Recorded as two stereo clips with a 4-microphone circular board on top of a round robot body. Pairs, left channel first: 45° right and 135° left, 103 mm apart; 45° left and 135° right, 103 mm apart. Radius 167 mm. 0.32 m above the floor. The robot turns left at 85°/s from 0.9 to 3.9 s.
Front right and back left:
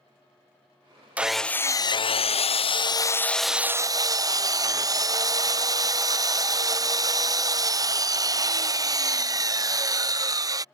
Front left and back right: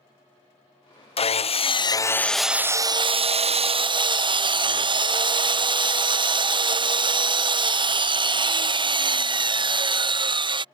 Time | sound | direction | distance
1.2 | sawing | 60° left | ?